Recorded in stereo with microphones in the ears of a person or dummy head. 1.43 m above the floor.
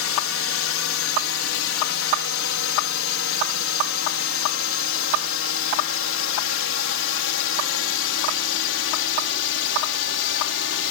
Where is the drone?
65° left (ahead or behind); by 10.9 s 60° left (ahead or behind).